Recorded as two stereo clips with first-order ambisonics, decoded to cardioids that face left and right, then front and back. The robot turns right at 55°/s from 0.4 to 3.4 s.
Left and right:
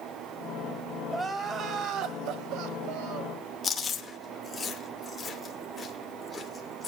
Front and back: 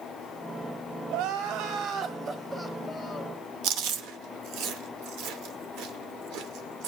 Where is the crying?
175° left, 1.5 m; by 3.4 s 60° right, 1.5 m.